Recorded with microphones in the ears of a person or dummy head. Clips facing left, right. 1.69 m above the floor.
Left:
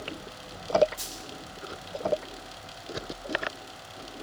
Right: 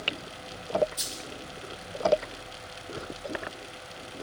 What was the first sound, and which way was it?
A dropped coin, 50° right (ahead or behind).